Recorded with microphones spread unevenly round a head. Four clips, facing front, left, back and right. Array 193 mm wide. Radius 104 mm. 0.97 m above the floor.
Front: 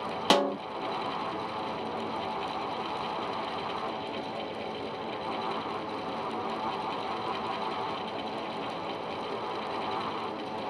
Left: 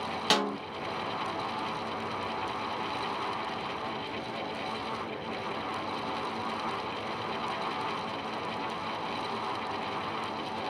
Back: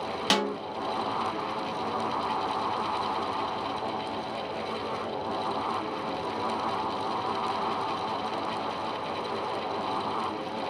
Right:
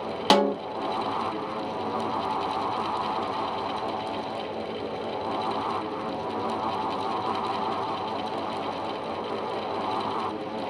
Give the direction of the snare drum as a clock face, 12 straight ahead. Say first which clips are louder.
Right 9 dB, front 3 dB; 2 o'clock.